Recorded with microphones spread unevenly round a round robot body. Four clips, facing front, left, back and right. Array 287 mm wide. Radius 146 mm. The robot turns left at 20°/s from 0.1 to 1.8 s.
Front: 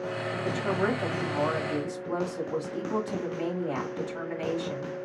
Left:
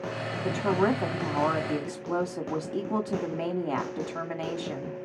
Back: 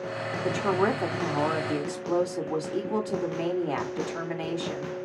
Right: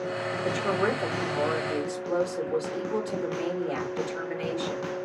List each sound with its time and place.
0.4 s a woman speaking: 155° left, 3 m; by 5.0 s 125° left, 3 m